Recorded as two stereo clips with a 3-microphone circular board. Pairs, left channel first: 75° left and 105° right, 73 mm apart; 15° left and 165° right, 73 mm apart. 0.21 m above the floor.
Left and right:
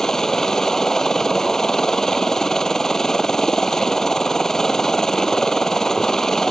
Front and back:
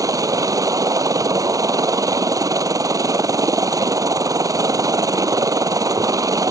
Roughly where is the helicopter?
Behind.